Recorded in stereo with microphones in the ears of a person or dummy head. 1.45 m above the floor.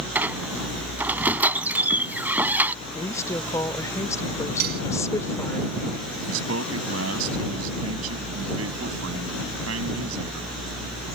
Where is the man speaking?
85° right.